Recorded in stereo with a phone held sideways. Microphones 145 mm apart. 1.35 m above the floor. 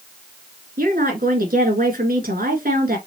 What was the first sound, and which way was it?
A woman speaking, 85° right.